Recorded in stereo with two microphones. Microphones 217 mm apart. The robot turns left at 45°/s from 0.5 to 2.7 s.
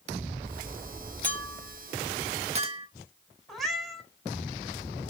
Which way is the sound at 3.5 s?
Centre (ahead or behind).